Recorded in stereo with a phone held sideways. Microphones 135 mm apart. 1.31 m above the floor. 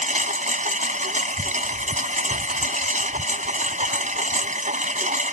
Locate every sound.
0.0 s a lawn mower: 70° right (ahead or behind)